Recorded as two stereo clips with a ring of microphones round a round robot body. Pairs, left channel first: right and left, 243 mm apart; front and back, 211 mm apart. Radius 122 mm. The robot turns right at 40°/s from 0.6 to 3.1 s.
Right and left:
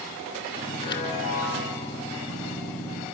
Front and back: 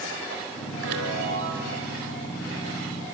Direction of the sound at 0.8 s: 140° right.